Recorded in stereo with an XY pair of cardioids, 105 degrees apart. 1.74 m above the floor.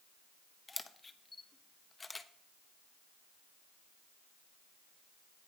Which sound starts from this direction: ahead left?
A camera shutter, at 0.7 s.